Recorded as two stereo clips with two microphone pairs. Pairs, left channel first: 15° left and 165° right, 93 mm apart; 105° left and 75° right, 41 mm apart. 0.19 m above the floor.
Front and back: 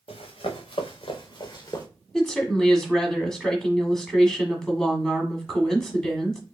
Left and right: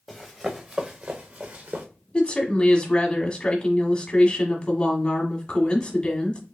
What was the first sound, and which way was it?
Running footsteps, 15° left.